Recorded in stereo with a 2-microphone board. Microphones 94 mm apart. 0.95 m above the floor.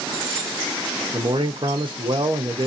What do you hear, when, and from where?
1.1 s a man speaking: 55° right (ahead or behind), 1.0 m